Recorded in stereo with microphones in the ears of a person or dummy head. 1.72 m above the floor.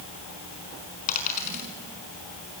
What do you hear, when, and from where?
1.1 s a dropped coin: 50° left (ahead or behind), 5 m